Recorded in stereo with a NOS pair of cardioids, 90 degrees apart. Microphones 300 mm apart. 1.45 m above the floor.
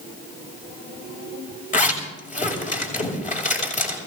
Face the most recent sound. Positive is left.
turn(degrees=25)